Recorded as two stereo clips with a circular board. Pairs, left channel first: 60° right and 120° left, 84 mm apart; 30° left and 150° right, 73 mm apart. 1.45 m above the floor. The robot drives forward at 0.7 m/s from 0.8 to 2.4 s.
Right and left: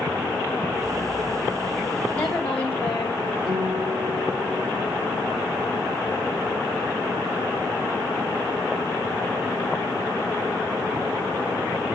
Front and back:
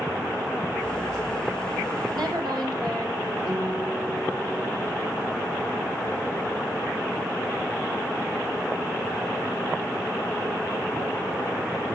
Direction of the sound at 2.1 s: 130° right.